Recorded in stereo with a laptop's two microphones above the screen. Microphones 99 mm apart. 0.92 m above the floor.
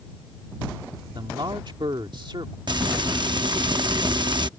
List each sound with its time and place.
1.1 s a man speaking: 55° right (ahead or behind)
2.7 s frying: 50° right (ahead or behind)